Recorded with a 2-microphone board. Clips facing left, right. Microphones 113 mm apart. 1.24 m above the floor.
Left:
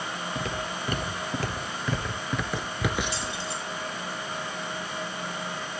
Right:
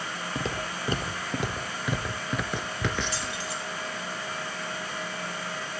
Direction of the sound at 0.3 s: 35° right (ahead or behind).